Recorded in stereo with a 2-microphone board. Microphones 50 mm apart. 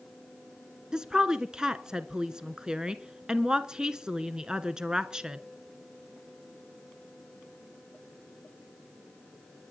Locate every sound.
0.9 s a woman speaking: 15° right (ahead or behind), 1.2 m